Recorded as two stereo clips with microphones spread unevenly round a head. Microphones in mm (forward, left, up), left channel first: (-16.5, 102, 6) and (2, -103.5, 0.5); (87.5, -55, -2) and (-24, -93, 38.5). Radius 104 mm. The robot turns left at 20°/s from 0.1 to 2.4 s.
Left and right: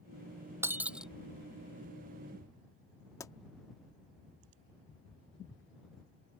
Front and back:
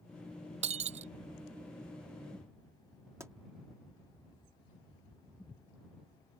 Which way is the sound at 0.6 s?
165° right.